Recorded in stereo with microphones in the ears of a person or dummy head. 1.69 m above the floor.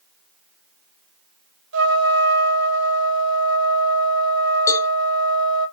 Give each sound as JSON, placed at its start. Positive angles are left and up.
{"t": 1.7, "sound": "a trumpet", "side_deg": -80, "distance_m": 0.8}
{"t": 4.7, "sound": "a cowbell", "side_deg": 20, "distance_m": 0.6}